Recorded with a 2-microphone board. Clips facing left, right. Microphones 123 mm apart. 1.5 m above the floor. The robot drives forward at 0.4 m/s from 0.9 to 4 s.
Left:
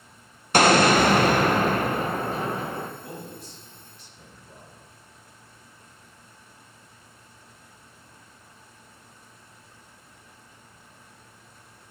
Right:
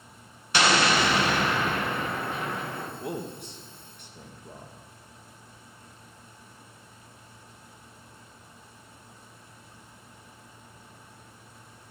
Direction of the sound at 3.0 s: 70° right (ahead or behind).